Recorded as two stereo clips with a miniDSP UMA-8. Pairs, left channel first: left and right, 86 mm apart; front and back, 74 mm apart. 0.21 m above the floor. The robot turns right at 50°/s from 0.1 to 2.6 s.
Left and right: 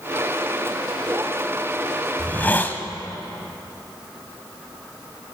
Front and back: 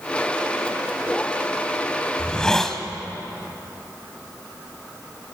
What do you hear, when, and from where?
2.2 s a hiss: 50° left, 1.3 m; by 2.8 s 70° left, 1.3 m